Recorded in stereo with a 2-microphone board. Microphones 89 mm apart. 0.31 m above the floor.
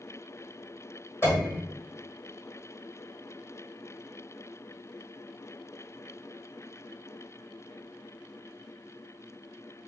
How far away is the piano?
About 1.5 m.